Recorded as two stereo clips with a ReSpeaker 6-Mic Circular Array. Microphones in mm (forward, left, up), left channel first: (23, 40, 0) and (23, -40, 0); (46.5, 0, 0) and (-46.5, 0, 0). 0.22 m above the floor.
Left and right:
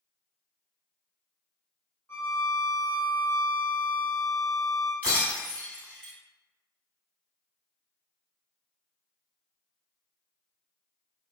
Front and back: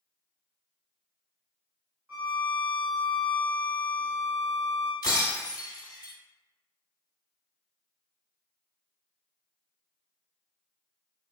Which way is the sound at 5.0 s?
25° left.